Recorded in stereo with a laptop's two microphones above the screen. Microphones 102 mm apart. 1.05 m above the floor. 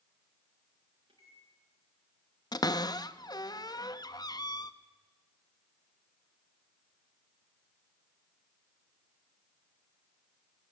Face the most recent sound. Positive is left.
turn(degrees=40)  # may be behind; listen again after turning